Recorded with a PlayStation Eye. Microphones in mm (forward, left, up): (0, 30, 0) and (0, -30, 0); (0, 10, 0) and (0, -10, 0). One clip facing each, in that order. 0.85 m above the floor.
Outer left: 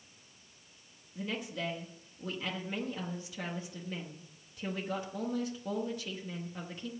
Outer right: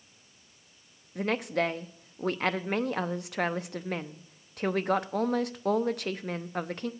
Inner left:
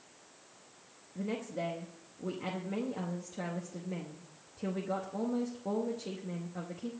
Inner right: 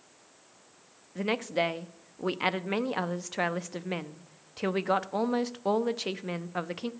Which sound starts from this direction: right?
A woman speaking, at 1.1 s.